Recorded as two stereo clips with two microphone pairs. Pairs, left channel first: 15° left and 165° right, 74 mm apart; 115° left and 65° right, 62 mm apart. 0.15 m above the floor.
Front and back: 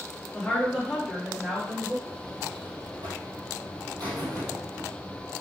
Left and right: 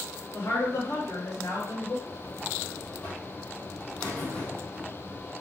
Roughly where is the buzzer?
Behind.